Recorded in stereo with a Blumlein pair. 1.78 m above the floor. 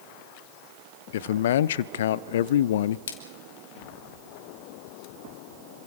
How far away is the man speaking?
About 0.8 m.